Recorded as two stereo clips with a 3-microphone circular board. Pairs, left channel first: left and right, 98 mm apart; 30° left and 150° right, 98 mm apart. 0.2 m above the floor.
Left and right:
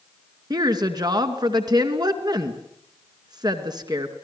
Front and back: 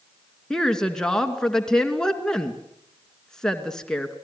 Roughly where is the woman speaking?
Ahead right.